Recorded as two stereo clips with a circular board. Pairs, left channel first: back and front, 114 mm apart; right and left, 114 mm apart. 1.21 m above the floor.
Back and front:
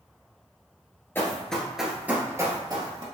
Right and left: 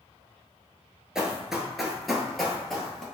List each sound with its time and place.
1.1 s running footsteps: 165° left, 1.2 m; by 3.0 s 5° right, 1.5 m